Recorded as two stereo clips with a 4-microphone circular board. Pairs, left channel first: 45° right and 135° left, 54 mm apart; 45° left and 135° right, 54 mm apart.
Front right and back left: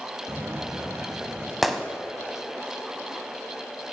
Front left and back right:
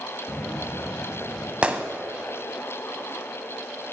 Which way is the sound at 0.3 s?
85° left.